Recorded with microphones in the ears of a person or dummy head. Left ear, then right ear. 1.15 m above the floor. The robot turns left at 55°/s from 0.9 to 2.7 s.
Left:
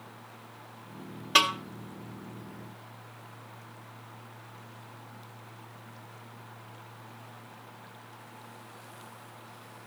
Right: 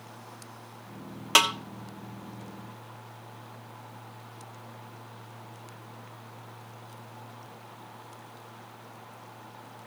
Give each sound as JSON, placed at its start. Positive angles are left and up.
{"t": 1.4, "sound": "a snare drum", "side_deg": -45, "distance_m": 1.3}